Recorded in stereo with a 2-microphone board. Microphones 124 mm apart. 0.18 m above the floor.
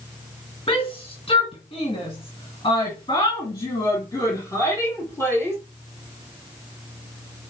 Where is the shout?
45° left (ahead or behind), 2.5 m; by 5.6 s 20° left (ahead or behind), 3.5 m.